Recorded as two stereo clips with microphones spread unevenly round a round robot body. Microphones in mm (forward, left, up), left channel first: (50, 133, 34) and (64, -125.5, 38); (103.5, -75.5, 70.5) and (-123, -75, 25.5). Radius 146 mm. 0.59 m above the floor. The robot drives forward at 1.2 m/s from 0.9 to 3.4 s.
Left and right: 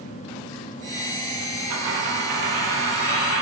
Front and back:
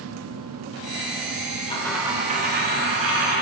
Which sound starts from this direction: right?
A dropped coin, at 1.7 s.